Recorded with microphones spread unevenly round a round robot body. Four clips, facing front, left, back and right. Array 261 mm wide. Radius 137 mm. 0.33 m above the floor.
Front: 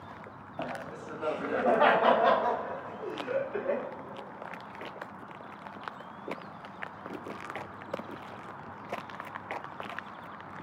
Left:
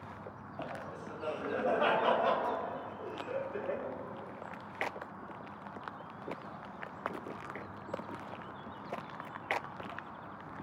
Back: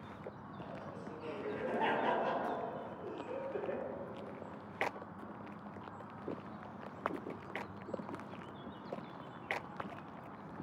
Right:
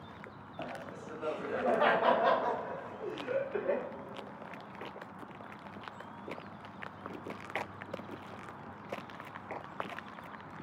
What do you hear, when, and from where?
0.6 s laughter: 5° left, 3 m; by 3.9 s 80° right, 1.5 m